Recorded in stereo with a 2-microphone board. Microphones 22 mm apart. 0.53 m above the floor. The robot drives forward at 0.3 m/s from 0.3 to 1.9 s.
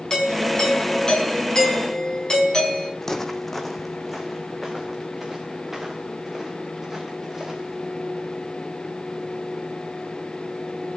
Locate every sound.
0.1 s a doorbell: 30° left (ahead or behind), 5.5 m
3.0 s footsteps: 20° left (ahead or behind), 1.1 m; by 7.8 s 15° right (ahead or behind), 4 m